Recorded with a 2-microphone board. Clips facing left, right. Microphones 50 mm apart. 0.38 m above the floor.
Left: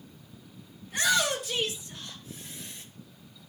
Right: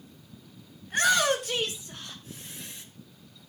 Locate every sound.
0.8 s a shout: 60° right (ahead or behind), 5 m; by 2.9 s 75° right (ahead or behind), 4.5 m